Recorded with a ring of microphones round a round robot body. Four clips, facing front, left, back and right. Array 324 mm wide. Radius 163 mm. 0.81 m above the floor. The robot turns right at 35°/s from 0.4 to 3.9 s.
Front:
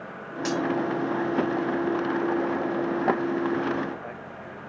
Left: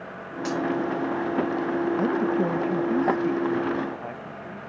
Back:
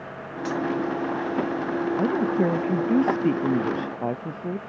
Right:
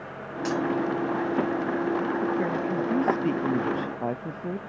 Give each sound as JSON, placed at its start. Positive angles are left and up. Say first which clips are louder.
{"t": 0.5, "sound": "cutlery clinking", "louder": "even, even", "azimuth_deg": 0}
{"t": 2.0, "sound": "a woman speaking", "louder": "left 3 dB, back 3 dB", "azimuth_deg": 145}